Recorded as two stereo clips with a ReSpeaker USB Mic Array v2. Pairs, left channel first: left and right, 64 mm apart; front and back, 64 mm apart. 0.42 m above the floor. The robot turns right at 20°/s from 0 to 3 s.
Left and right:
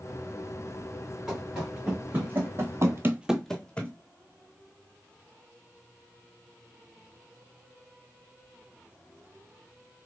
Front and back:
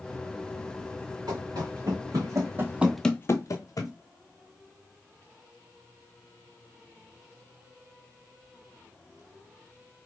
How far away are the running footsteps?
About 2.5 m.